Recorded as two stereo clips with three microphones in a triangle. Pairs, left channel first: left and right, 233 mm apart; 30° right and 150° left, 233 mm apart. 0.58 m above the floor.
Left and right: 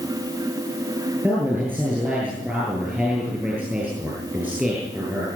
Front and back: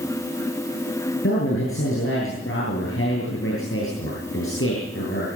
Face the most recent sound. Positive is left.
turn(degrees=-5)